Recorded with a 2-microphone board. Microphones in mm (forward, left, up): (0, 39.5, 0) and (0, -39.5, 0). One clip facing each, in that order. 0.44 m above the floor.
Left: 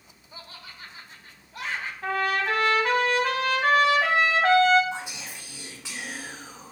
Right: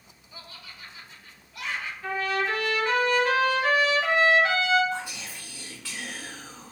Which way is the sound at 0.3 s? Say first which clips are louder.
Left 1 dB; 40° left (ahead or behind).